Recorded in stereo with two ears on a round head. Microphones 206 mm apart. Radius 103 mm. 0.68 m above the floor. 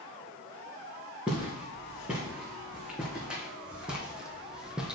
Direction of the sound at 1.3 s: 5° right (ahead or behind).